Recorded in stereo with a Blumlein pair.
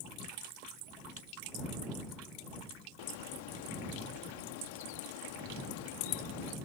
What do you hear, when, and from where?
3.0 s a bird: 50° left